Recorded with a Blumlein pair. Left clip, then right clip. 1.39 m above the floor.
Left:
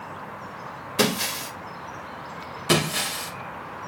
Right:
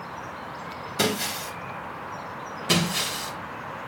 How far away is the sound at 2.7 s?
About 3 m.